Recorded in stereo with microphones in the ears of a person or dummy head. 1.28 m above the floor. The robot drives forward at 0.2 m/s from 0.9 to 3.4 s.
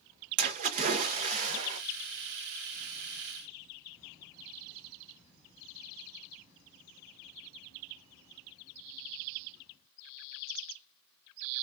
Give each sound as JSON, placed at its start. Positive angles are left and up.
{"t": 0.4, "sound": "a splash", "side_deg": -40, "distance_m": 0.9}